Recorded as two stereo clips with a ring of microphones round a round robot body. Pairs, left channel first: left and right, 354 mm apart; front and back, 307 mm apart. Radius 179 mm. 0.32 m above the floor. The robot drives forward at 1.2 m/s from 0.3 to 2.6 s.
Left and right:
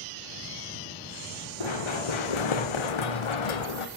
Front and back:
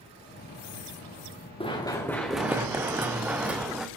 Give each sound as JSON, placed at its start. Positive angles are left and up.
{"t": 1.6, "sound": "running footsteps", "azimuth_deg": 75, "distance_m": 2.5}